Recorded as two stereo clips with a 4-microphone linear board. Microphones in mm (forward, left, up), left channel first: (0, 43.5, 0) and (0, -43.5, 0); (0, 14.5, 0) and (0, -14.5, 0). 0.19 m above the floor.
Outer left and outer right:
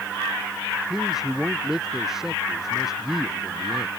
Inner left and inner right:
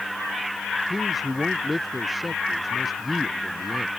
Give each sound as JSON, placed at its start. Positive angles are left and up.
{"t": 0.9, "sound": "a man speaking", "side_deg": -5}